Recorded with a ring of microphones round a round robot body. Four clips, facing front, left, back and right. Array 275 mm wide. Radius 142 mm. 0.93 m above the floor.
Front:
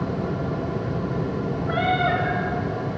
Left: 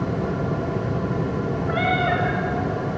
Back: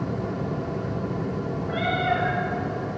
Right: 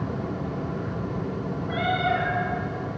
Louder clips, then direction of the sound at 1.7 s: Left 2 dB, front 3 dB; 40° left.